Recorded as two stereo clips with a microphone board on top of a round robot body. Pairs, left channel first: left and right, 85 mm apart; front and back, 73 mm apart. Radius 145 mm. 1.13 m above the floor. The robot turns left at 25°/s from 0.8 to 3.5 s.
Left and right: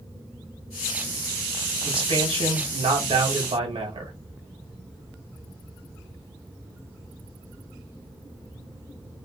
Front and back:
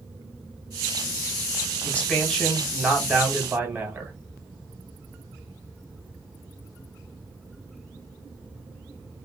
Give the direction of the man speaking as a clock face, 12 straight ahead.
2 o'clock.